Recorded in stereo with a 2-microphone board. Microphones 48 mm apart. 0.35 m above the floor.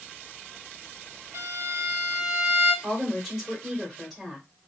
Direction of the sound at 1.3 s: 75° right (ahead or behind).